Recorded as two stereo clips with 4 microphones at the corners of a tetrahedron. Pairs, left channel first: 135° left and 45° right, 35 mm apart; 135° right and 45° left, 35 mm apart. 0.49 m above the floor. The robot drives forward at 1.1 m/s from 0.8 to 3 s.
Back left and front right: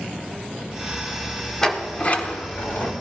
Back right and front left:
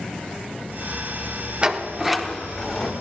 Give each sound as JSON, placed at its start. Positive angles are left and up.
{"t": 1.6, "sound": "a sliding door", "azimuth_deg": 75, "distance_m": 1.1}